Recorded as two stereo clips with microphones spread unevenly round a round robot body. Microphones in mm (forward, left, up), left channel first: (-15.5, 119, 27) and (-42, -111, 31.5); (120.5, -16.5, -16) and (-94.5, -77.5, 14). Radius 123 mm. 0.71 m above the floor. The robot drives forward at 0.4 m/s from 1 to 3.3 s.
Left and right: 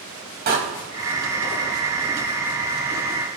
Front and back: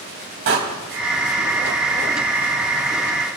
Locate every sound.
0.5 s a door slam: 145° right, 3 m